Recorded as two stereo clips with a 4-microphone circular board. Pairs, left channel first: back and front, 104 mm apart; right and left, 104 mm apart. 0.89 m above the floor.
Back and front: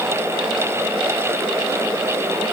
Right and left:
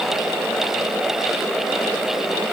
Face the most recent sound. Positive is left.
No sound to turn to.